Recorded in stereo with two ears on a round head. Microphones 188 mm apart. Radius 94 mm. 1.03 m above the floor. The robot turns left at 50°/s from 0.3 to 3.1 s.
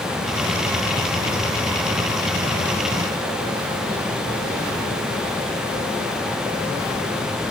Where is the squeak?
No squeak in this recording.